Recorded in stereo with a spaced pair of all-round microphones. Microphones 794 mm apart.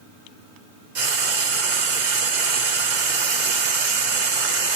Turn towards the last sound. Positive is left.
turn(degrees=-75)  # may be behind; listen again after turning